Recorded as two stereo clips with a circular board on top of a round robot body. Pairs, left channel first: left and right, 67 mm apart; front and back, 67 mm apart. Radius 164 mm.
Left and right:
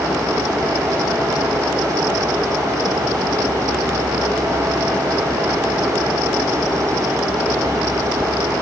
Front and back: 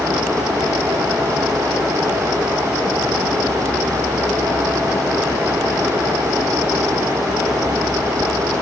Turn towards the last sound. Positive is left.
No sound to turn to.